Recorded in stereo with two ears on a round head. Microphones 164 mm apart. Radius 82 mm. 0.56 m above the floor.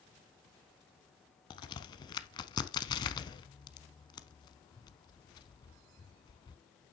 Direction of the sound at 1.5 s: 25° left (ahead or behind).